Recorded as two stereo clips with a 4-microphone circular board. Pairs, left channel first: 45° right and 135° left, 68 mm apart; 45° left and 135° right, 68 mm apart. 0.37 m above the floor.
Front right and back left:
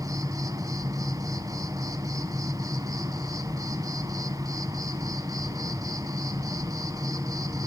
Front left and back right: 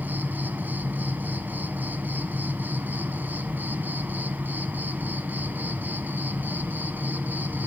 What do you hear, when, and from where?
0.0 s an insect: 165° left, 1.2 m